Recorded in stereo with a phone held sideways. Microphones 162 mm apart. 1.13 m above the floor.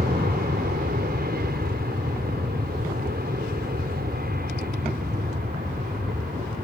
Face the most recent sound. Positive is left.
turn(degrees=-70)  # may be behind; listen again after turning